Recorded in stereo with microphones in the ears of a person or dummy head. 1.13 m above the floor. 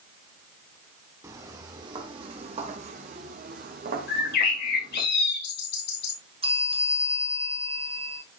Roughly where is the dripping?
I don't hear dripping.